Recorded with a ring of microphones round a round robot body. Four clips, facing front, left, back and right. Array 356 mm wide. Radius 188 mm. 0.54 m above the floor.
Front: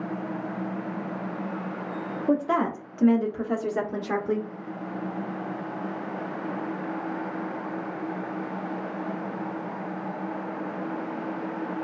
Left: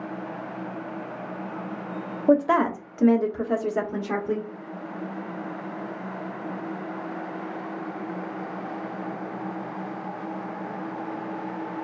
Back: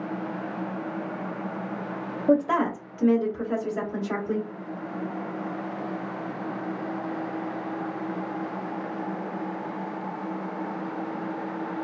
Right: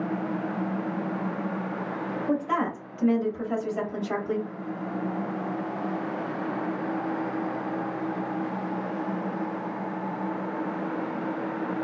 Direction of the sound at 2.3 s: 100° left.